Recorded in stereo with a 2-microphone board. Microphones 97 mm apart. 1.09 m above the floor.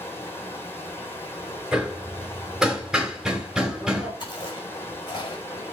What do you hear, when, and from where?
0.0 s running water: 25° left (ahead or behind), 4 m
1.7 s hammering: 5° right (ahead or behind), 4 m
4.2 s chewing: 50° left (ahead or behind), 5.5 m